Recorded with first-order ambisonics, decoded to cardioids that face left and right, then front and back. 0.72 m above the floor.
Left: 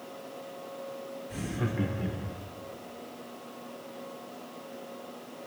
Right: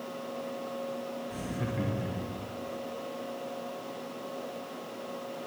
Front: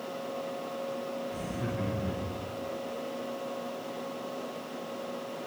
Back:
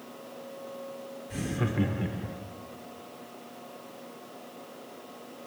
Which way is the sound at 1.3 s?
160° left.